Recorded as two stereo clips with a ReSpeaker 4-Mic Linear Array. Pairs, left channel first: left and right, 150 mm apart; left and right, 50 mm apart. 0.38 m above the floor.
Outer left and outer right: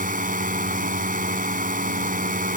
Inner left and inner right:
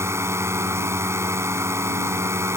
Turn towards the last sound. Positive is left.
turn(degrees=-65)  # may be behind; listen again after turning